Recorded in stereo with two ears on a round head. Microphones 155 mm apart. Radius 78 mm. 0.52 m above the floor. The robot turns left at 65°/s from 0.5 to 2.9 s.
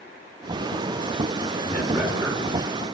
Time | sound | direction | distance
1.6 | a man speaking | 20° left (ahead or behind) | 6.5 m